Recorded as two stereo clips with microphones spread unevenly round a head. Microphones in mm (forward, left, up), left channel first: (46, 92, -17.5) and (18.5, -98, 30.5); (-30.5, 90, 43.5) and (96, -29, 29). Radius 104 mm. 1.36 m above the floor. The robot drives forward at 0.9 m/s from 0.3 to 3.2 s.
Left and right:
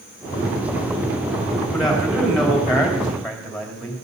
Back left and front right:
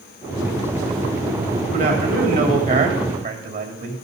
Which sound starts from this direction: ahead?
A man speaking, at 1.7 s.